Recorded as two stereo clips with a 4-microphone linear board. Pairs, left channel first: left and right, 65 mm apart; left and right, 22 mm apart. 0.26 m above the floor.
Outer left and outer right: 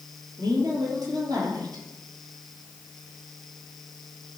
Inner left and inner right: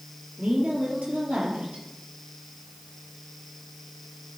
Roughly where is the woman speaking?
Right.